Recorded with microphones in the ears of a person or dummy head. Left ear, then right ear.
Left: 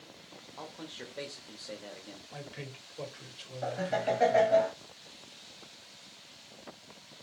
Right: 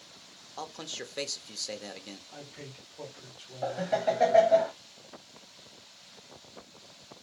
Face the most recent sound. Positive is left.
turn(degrees=-15)  # may be behind; listen again after turning